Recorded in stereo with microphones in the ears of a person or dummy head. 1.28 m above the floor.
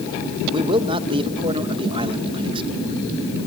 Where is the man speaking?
25° right (ahead or behind), 1.1 m.